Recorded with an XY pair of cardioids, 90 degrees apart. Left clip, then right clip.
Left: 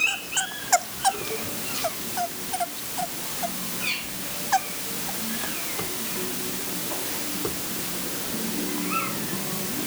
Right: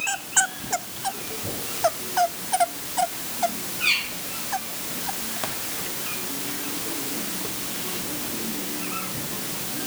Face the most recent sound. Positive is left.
No sound to turn to.